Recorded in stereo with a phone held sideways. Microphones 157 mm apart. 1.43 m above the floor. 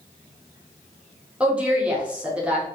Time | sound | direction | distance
1.4 | a woman speaking | 10° right (ahead or behind) | 0.7 m